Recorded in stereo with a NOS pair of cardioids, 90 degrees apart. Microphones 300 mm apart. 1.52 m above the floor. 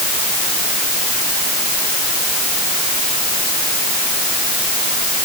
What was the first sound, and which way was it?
Only background noise.